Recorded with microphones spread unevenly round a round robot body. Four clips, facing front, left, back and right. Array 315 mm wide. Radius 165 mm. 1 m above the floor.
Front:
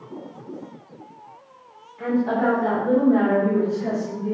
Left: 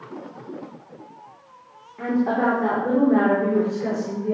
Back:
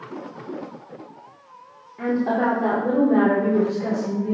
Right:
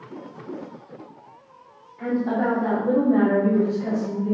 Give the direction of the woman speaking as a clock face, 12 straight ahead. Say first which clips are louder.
Left 2 dB, even; 8 o'clock.